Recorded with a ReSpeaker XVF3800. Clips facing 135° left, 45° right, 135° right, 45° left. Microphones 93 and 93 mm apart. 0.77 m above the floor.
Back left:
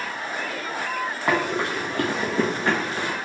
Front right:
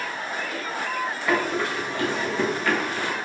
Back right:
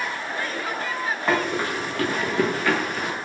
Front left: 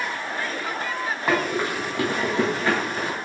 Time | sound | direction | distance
1.3 | running footsteps | 125° left | 1.7 m